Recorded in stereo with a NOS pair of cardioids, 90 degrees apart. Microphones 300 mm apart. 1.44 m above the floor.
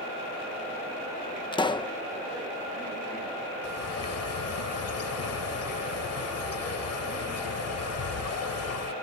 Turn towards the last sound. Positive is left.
turn(degrees=55)